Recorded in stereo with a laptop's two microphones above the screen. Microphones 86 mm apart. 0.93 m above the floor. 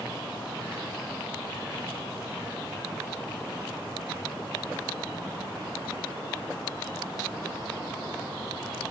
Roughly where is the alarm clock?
No alarm clock in this recording.